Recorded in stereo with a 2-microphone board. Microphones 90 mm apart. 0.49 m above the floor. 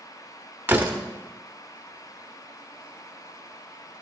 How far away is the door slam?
About 0.9 m.